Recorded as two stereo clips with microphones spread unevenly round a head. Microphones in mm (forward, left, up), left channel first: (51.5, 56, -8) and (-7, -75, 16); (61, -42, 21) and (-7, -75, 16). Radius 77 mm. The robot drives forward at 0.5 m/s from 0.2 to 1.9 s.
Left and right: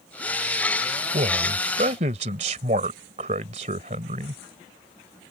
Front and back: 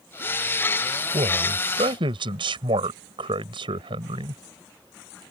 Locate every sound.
1.1 s a man speaking: 160° right